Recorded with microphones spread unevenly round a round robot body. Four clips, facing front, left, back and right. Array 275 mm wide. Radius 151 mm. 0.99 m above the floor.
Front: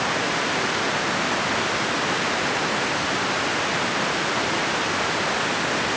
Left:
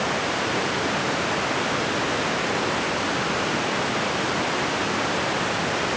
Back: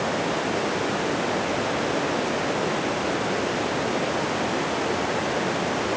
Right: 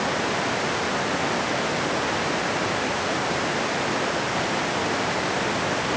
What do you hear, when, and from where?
Only background noise.